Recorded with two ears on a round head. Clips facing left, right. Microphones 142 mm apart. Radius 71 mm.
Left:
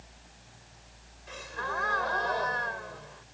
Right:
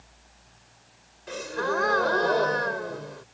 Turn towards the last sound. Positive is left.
turn(degrees=-60)  # may be behind; listen again after turning